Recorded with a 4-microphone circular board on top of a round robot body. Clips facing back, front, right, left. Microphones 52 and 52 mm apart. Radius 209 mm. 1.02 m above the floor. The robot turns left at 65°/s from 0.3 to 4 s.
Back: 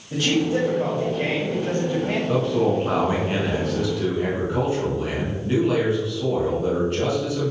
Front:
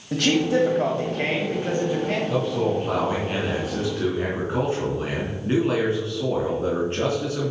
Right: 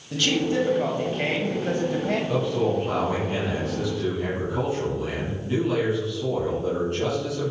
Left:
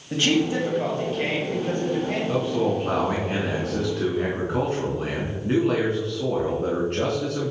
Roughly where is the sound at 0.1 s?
Ahead left.